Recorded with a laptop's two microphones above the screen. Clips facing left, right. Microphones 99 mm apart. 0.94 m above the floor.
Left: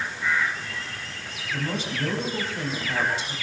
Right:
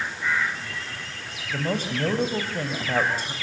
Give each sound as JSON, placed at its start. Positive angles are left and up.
{"t": 1.5, "sound": "a man speaking", "side_deg": -45, "distance_m": 6.5}